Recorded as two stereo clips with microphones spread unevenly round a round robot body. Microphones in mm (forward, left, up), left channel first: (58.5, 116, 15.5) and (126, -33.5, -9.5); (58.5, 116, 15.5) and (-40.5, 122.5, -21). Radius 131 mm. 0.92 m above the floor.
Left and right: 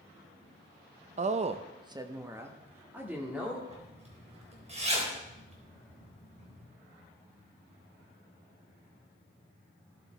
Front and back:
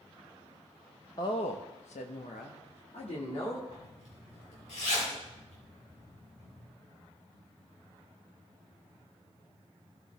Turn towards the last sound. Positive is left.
turn(degrees=-15)